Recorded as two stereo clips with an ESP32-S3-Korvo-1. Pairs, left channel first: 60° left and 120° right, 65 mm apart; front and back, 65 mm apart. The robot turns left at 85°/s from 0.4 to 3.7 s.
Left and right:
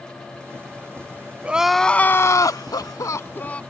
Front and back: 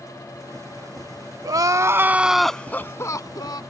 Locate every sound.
1.4 s crying: 170° left; by 3.6 s 10° right